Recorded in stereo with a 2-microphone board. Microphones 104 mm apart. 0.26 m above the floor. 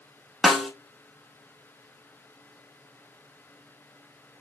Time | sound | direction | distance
0.4 | a snare drum | centre (ahead or behind) | 0.6 m